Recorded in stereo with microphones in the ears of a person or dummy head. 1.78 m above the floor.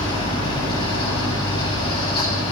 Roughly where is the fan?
Left.